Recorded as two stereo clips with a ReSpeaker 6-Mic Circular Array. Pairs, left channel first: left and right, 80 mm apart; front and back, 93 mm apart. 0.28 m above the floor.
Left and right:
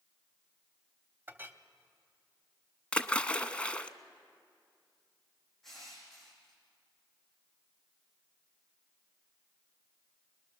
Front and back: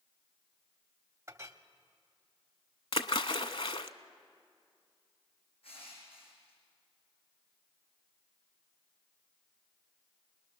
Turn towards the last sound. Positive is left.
turn(degrees=5)